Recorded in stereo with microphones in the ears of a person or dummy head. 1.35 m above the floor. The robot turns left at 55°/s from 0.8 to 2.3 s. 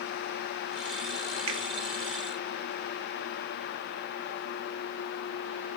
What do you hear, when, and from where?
1.5 s a finger snap: 35° right (ahead or behind), 0.8 m; by 1.6 s 30° right (ahead or behind), 0.8 m